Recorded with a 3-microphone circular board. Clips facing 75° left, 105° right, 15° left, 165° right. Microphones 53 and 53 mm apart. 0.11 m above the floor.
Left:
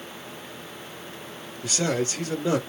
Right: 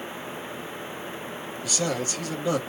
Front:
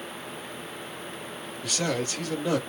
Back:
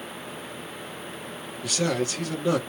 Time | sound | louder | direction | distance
1.6 | a man speaking | left 3 dB, back 3 dB | 110° left | 2 m